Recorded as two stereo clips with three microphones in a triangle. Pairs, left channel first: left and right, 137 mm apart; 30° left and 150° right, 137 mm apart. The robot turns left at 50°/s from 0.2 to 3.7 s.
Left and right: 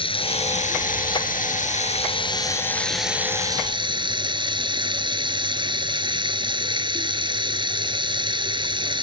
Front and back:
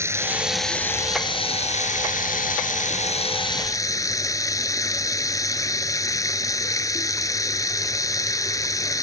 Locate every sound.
0.0 s running water: 140° left; by 9.0 s 35° right